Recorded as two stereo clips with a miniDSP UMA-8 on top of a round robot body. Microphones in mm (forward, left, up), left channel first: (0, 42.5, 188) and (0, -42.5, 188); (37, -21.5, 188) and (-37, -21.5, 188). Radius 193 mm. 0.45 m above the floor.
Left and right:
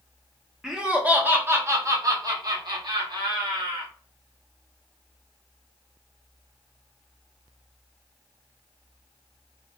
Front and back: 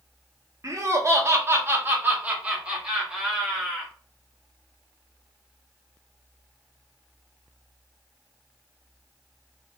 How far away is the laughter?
About 1.3 m.